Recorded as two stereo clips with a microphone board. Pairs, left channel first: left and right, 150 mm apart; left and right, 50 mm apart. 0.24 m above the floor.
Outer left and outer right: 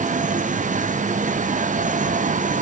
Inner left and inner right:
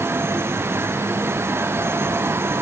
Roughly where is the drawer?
No drawer in this recording.